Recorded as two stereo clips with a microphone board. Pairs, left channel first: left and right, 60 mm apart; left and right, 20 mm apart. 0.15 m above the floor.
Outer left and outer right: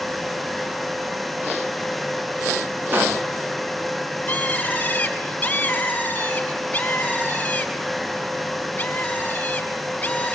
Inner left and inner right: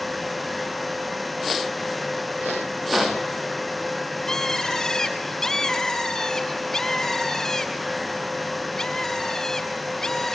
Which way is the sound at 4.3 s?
25° left (ahead or behind).